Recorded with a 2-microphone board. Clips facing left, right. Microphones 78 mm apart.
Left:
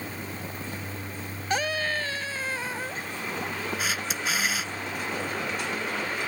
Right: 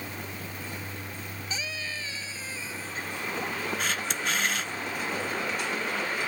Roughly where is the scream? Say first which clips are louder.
Left 11 dB; left.